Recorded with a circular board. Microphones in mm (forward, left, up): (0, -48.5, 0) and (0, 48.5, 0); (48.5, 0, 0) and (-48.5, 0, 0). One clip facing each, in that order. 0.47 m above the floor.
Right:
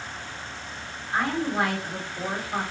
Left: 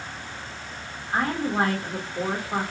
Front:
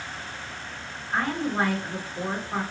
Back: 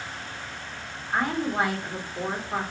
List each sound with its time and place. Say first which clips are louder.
1.1 s a woman speaking: left 1 dB, back 1 dB; 110° left, 1.3 m